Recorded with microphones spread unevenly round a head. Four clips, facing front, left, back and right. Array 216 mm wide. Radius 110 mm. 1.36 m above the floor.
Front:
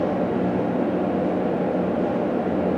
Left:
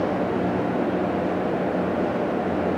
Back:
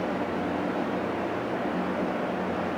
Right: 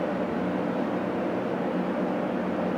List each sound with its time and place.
Only background noise.